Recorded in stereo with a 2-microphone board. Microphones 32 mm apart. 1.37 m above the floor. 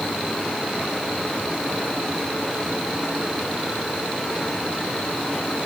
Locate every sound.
Only background noise.